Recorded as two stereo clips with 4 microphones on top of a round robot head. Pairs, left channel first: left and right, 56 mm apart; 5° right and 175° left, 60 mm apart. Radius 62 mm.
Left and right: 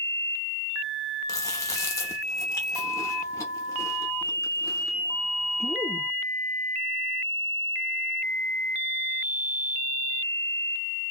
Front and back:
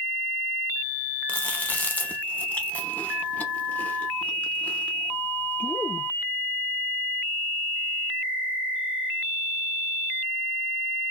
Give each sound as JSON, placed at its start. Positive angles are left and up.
{"t": 1.3, "sound": "chewing", "azimuth_deg": 60, "distance_m": 0.7}